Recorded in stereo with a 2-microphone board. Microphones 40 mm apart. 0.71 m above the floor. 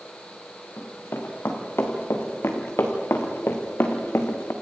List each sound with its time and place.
0.8 s running footsteps: 75° left (ahead or behind), 4.5 m